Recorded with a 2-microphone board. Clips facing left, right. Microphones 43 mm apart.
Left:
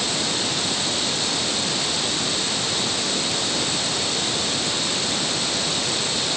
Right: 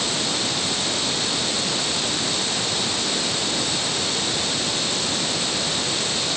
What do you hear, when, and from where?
Only background noise.